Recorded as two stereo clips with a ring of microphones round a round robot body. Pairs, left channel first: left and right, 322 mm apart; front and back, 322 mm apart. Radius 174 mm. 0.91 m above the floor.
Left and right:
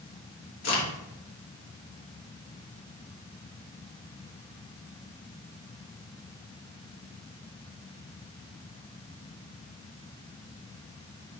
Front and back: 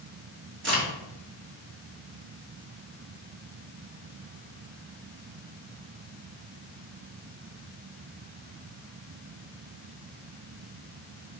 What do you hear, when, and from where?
0.6 s a crack: 130° left, 2.5 m